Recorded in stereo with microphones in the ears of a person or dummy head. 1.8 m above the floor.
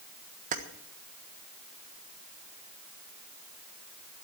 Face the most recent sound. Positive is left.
turn(degrees=-45)  # may be behind; listen again after turning